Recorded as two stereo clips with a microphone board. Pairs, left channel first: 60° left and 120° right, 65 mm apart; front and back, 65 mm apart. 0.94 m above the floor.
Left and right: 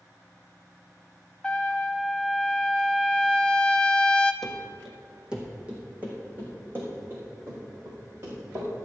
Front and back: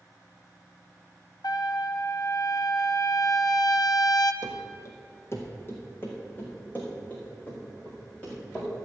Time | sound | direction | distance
1.4 | a trumpet | 15° right | 0.6 m
4.4 | running footsteps | 25° right | 2 m